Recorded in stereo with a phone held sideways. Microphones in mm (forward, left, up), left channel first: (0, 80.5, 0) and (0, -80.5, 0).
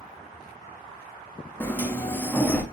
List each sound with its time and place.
1.6 s a sliding door: 10° left (ahead or behind), 0.5 m